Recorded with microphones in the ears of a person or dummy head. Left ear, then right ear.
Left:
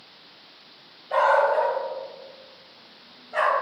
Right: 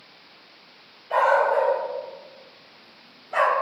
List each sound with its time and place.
1.1 s a dog barking: 20° right (ahead or behind), 1.5 m; by 3.5 s 60° right (ahead or behind), 1.6 m